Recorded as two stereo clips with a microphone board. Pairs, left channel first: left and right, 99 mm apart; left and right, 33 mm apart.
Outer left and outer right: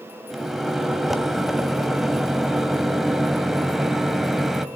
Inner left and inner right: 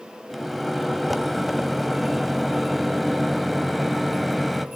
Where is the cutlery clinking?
No cutlery clinking in this recording.